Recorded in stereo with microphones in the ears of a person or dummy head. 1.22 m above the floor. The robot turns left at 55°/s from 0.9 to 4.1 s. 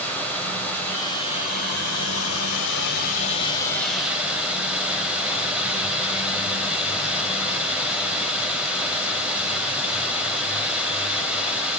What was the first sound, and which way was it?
Running water, 170° left.